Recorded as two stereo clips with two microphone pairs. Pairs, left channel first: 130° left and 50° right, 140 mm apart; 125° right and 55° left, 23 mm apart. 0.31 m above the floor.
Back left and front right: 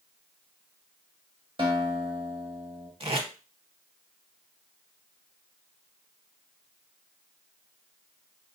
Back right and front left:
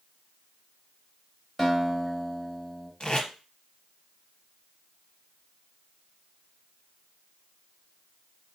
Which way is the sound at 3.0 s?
85° right.